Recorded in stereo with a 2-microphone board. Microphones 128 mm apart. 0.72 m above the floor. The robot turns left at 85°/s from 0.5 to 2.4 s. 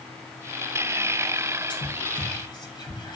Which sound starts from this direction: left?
Whispering, at 1.7 s.